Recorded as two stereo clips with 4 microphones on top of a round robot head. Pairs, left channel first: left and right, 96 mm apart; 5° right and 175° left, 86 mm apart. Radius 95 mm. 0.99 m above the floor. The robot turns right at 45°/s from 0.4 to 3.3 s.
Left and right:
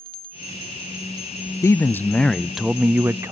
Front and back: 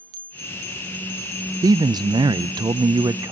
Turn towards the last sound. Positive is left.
turn(degrees=-145)